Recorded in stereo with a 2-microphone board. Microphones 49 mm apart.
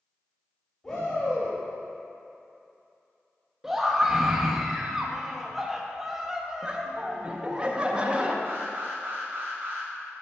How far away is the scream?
About 0.7 m.